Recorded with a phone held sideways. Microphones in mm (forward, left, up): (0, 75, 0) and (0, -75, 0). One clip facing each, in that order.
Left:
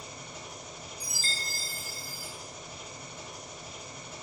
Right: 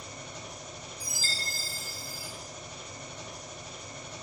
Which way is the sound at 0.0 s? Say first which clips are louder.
Right 1 dB; 10° left (ahead or behind).